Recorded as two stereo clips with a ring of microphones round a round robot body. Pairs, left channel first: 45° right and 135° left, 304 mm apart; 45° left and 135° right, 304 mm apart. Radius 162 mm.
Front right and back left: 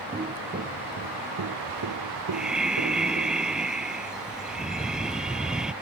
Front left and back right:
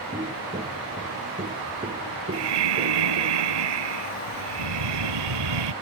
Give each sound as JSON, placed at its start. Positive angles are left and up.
{"t": 0.1, "sound": "footsteps", "azimuth_deg": 175}
{"t": 2.3, "sound": "breathing", "azimuth_deg": -135}